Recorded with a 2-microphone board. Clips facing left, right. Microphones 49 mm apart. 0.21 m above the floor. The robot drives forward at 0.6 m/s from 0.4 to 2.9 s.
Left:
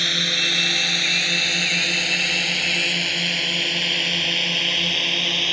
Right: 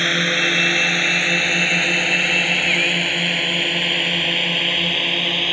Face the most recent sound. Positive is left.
turn(degrees=-15)  # may be behind; listen again after turning